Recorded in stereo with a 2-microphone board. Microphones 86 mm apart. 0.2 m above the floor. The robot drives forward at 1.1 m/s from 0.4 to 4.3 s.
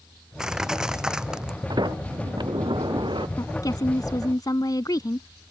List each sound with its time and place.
0.4 s crushing: 10° right (ahead or behind)
1.7 s a sliding door: 55° right (ahead or behind); by 3.3 s 65° right (ahead or behind)
3.4 s a woman speaking: 40° left (ahead or behind); by 5.3 s 45° left (ahead or behind)